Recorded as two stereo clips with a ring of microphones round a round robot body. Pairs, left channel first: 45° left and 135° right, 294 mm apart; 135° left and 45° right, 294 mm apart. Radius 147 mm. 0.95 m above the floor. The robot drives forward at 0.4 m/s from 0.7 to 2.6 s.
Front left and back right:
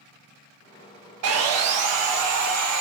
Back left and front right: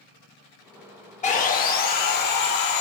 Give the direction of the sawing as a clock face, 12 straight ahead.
5 o'clock.